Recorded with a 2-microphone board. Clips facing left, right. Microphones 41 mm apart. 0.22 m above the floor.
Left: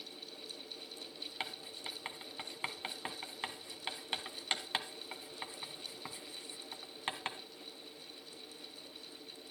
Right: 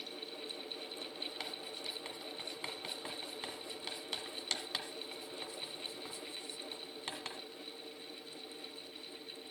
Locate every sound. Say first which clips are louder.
1.4 s writing: even; 30° left (ahead or behind), 1.4 m